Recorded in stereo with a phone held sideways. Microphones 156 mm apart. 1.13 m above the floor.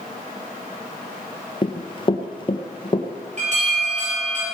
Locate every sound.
1.6 s running footsteps: 30° left (ahead or behind), 1.2 m
3.4 s an alarm: 50° right (ahead or behind), 7.5 m